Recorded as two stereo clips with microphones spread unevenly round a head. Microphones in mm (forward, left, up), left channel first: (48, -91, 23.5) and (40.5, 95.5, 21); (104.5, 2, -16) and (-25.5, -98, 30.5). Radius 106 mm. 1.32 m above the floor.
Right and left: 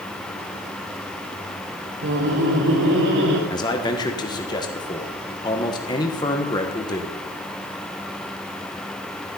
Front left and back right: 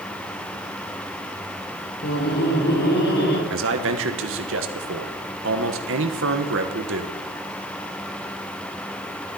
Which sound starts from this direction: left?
Laughter, at 2.0 s.